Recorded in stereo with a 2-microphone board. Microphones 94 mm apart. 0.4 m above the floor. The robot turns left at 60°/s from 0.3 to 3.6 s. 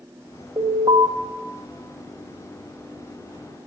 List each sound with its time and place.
0.6 s an alarm: 60° right, 3 m; by 1.1 s 95° right, 3 m